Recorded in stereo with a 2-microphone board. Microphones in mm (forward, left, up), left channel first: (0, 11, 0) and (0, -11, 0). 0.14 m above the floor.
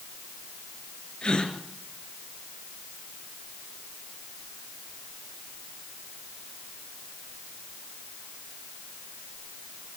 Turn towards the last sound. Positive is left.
turn(degrees=50)  # may be behind; listen again after turning